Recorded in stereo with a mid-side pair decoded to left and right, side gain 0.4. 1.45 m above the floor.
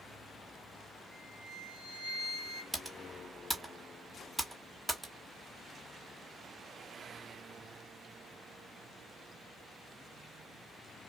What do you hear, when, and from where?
1.1 s a flute: 65° left, 1.0 m
2.7 s typing on a keyboard: 10° right, 1.3 m